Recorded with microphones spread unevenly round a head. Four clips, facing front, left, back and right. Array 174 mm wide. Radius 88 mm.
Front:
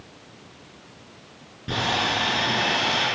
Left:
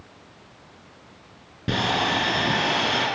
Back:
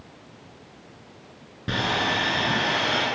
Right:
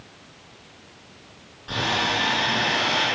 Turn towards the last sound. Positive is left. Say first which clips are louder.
# left 2 dB, even
turn(degrees=110)